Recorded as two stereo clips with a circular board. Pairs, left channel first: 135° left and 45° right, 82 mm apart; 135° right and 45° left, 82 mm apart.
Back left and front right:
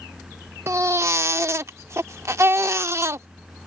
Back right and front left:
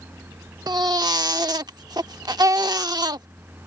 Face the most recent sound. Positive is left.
turn(degrees=10)